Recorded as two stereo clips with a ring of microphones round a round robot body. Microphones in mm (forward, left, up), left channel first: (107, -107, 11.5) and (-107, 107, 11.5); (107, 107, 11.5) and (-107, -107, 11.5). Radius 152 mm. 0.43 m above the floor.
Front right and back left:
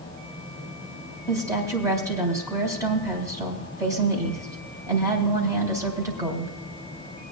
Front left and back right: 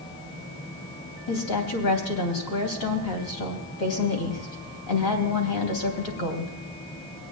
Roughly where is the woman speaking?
Ahead left.